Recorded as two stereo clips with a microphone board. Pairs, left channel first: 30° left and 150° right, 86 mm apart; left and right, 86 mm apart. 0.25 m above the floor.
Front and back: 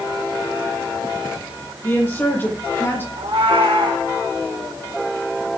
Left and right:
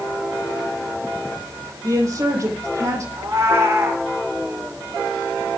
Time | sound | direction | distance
1.8 | a woman speaking | 40° right | 9.5 m
3.2 | a cat meowing | 150° right | 6.5 m